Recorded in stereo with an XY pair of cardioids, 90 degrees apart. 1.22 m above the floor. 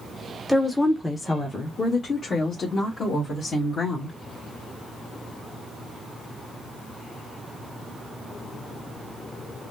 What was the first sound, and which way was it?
A woman speaking, straight ahead.